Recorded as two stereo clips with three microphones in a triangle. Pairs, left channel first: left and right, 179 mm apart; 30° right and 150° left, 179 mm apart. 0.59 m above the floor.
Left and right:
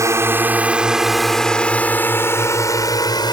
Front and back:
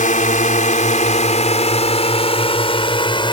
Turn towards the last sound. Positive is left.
turn(degrees=30)